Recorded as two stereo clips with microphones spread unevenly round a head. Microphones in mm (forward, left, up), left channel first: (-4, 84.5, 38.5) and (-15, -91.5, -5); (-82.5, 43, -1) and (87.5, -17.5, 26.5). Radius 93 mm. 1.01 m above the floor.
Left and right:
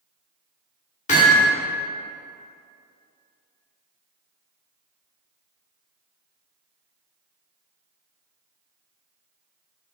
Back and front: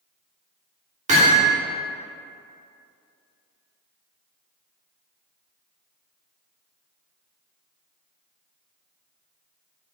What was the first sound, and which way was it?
Hammering, 35° left.